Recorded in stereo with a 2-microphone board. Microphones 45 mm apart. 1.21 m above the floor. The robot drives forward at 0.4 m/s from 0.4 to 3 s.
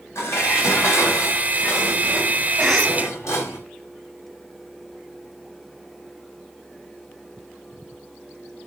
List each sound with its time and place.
0.1 s dishes clattering: 80° left, 6 m; by 3.6 s 85° left, 6 m
2.6 s a cough: centre (ahead or behind), 1.5 m